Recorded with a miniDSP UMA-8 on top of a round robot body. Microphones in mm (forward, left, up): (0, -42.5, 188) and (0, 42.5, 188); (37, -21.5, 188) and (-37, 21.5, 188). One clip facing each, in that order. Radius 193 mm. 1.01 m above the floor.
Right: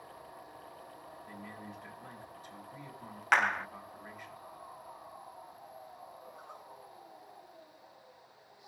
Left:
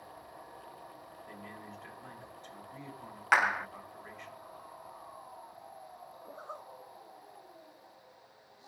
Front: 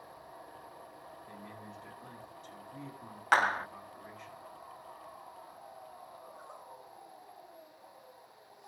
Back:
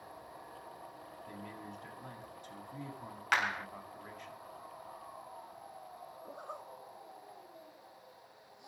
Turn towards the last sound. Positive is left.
turn(degrees=145)